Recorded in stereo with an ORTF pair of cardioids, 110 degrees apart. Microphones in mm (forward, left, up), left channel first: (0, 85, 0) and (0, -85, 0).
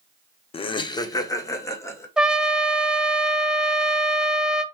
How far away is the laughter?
About 0.6 m.